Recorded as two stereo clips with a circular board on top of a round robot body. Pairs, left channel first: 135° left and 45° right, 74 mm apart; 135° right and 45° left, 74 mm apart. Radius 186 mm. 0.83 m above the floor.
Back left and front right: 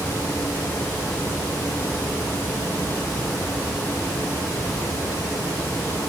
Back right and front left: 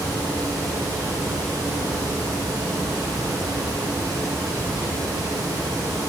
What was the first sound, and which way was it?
Only background noise.